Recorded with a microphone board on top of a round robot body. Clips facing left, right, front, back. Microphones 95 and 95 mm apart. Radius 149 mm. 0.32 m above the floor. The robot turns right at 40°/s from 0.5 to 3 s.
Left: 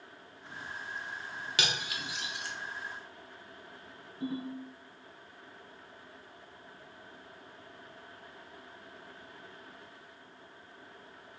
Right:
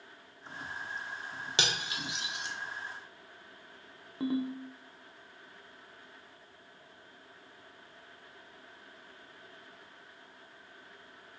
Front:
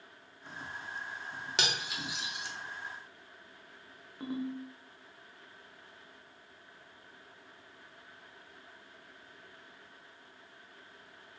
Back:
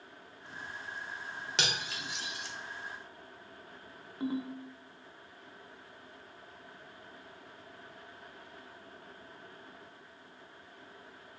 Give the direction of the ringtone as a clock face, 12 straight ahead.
3 o'clock.